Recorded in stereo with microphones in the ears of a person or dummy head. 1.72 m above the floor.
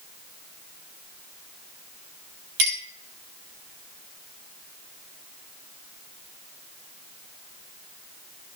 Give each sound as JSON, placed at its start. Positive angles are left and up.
{"t": 2.6, "sound": "a clink", "side_deg": -75, "distance_m": 3.0}